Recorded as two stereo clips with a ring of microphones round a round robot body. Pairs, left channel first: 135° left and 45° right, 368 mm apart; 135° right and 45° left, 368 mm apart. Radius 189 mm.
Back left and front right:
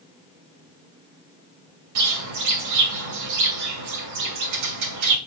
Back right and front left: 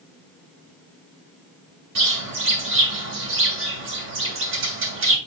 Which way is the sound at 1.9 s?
10° right.